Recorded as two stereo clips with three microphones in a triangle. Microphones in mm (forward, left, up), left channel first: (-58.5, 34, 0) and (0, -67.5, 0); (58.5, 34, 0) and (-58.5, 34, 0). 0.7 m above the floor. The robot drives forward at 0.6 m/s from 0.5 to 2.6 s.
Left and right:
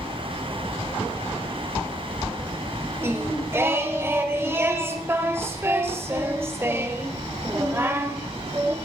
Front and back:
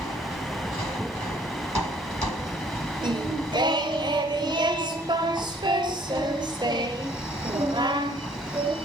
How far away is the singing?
About 1.1 m.